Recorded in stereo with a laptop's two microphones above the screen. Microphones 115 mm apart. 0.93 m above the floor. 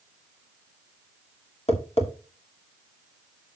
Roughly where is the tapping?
Left.